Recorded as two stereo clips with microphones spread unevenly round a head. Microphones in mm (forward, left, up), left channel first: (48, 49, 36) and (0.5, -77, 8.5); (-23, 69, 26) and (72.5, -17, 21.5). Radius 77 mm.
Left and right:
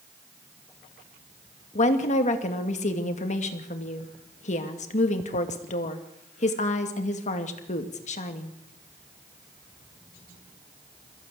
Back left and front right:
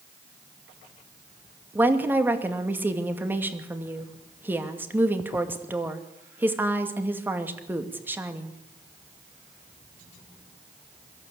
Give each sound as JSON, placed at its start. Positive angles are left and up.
{"t": 1.8, "sound": "a woman speaking", "azimuth_deg": 35, "distance_m": 2.5}